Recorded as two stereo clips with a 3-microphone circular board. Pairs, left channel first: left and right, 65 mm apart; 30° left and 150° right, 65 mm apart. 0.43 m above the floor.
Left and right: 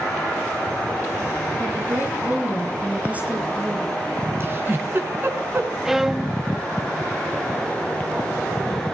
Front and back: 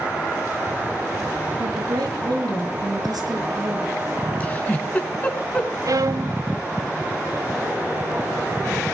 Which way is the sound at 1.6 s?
145° right.